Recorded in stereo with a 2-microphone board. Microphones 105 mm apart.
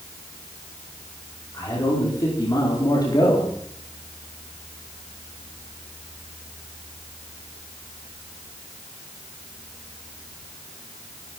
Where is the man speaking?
35° left (ahead or behind), 5 m; by 3.5 s 40° left (ahead or behind), 4 m.